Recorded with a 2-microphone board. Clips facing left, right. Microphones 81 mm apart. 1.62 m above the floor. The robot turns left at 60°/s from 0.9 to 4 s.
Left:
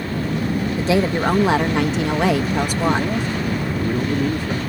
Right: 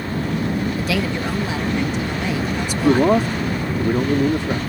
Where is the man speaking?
80° right; by 4.6 s 155° right.